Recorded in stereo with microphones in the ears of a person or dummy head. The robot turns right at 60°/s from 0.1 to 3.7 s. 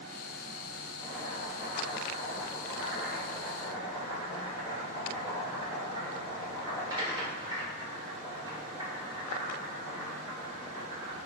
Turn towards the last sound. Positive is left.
turn(degrees=-25)